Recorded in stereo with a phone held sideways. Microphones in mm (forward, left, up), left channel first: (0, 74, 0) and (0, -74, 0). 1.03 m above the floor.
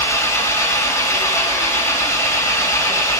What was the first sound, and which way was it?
An engine running, 20° left (ahead or behind).